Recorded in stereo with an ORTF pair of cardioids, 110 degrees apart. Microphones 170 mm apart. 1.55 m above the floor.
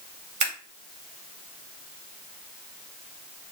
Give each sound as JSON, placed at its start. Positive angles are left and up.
{"t": 0.4, "sound": "scissors", "azimuth_deg": -50, "distance_m": 2.5}